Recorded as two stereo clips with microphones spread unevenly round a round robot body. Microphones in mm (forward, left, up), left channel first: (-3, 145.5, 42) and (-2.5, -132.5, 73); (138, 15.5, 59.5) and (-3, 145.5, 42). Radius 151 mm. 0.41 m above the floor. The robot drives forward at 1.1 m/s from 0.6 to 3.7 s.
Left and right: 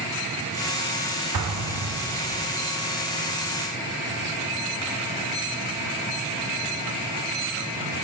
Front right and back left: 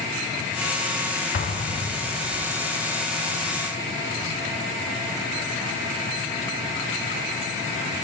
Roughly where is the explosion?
Ahead right.